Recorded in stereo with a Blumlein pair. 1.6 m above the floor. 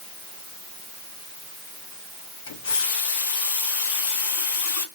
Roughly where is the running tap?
Ahead left.